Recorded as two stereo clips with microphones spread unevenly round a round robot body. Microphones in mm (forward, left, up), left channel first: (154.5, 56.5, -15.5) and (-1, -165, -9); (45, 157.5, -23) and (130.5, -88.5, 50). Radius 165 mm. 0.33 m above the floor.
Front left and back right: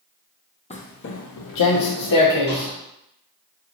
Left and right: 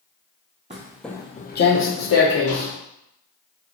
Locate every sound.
0.7 s footsteps: 15° right, 0.7 m; by 2.7 s 80° left, 1.5 m